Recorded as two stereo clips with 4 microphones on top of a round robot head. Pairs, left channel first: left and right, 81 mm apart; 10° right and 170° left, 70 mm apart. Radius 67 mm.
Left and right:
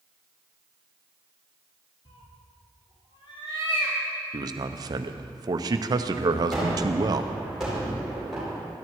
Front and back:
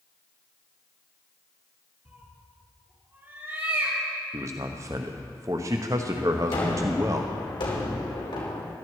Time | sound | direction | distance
2.0 | a cat meowing | 110° left | 3 m
4.3 | a man speaking | 130° right | 0.9 m
6.5 | a gunshot | straight ahead | 4.5 m